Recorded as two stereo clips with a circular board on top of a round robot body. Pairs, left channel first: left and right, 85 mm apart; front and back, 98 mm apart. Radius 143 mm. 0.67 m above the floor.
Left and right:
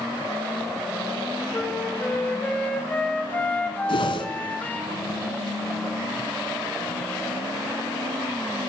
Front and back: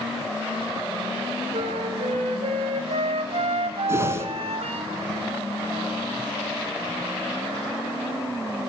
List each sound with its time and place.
1.5 s a flute: 165° left, 4.5 m
3.9 s a whoosh: 115° left, 4 m